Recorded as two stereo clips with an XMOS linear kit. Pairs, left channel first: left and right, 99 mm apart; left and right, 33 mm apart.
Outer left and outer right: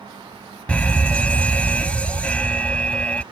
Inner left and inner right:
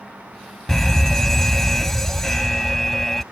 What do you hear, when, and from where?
0.7 s a fire alarm: 10° left (ahead or behind)